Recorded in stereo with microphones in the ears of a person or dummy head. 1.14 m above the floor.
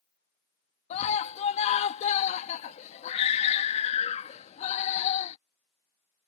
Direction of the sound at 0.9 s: 35° left (ahead or behind).